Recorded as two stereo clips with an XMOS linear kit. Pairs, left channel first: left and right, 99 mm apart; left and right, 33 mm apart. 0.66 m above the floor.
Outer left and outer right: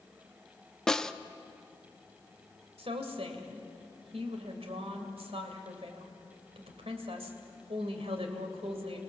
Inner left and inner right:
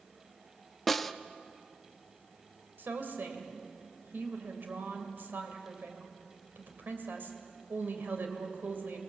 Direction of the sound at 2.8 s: 70° right (ahead or behind).